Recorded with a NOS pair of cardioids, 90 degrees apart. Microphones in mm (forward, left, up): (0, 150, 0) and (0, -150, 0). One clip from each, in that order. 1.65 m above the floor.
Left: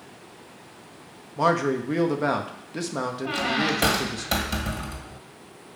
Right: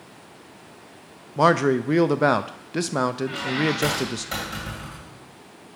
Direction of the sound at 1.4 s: 30° right.